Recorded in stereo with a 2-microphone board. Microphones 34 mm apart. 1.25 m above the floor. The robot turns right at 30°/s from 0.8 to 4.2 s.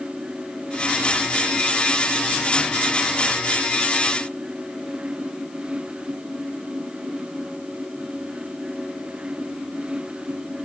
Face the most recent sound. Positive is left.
No sound to turn to.